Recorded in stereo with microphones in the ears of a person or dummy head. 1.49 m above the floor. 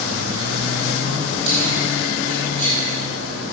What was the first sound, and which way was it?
Keys jangling, 35° right (ahead or behind).